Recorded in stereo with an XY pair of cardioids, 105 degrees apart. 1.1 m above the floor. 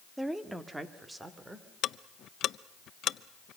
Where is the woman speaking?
10° right, 1.5 m; by 1.7 s 20° right, 3.5 m.